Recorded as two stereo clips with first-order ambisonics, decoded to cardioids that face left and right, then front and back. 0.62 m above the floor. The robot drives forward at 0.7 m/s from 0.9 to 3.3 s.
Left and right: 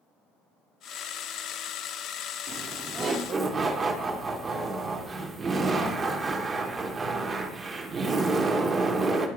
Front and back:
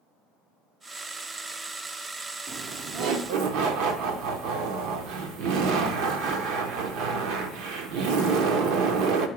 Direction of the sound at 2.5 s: 135° right.